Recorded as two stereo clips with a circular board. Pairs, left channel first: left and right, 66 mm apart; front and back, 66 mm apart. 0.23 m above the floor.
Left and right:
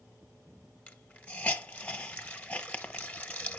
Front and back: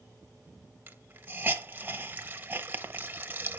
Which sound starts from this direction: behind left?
A hiss, at 0.9 s.